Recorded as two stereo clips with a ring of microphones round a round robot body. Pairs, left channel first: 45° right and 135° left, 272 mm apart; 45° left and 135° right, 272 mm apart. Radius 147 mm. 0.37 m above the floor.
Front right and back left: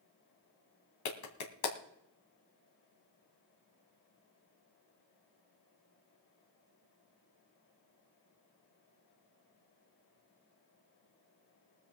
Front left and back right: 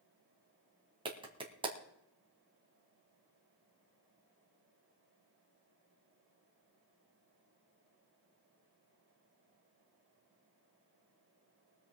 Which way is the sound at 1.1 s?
65° right.